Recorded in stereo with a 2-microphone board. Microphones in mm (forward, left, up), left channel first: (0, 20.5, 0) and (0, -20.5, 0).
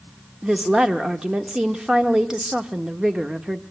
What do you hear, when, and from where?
0.4 s a woman speaking: 20° right (ahead or behind), 1.1 m